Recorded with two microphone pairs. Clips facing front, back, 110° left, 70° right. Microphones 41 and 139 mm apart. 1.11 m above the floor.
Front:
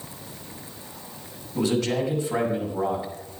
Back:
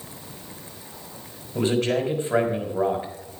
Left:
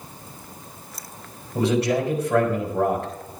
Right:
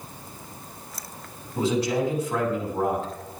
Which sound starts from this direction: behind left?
A man speaking, at 1.6 s.